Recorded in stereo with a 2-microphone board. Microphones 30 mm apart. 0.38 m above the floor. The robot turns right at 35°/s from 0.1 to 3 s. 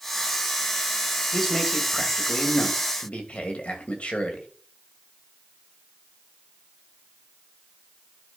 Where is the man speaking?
5° left, 2.5 m; by 4.5 s 65° left, 2.5 m.